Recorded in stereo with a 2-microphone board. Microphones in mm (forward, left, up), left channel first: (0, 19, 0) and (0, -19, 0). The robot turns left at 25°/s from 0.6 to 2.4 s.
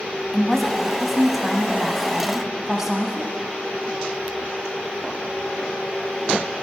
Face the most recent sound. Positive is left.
turn(degrees=-15)  # may be behind; listen again after turning